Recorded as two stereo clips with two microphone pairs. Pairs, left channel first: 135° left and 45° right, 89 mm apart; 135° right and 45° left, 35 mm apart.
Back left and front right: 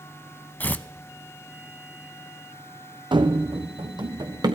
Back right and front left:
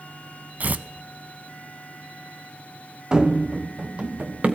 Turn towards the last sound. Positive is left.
turn(degrees=-5)